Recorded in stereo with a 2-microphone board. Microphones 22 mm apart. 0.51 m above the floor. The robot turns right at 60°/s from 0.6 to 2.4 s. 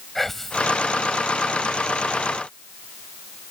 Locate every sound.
0.1 s whispering: 10° left (ahead or behind); by 0.7 s 5° left (ahead or behind)